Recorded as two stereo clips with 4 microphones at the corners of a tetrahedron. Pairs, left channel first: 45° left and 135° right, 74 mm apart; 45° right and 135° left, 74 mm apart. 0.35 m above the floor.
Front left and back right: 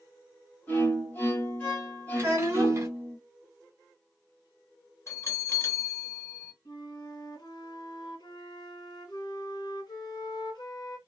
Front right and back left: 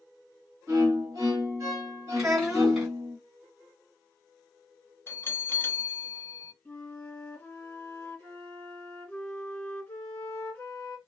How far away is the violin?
About 1.5 m.